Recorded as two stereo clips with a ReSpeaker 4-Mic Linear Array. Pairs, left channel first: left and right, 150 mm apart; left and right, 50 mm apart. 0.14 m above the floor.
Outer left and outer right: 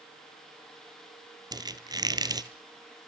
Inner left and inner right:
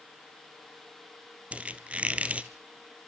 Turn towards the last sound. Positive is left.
turn(degrees=-25)  # may be behind; listen again after turning